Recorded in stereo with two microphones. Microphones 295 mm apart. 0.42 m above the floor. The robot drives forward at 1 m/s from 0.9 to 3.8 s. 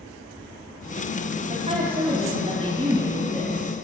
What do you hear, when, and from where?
1.4 s a woman speaking: 25° right (ahead or behind), 3 m; by 3.7 s 15° right (ahead or behind), 5 m